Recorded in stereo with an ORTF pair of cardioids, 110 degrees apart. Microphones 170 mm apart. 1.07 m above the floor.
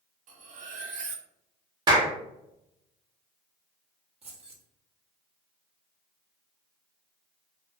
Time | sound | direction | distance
0.3 | cutlery clinking | 55° right | 0.7 m
1.9 | a clap | 30° right | 1.0 m
4.2 | keys jangling | 40° right | 1.0 m